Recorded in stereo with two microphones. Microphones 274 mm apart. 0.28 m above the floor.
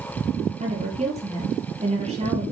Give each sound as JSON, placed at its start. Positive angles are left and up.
{"t": 0.6, "sound": "a woman speaking", "side_deg": -25, "distance_m": 8.0}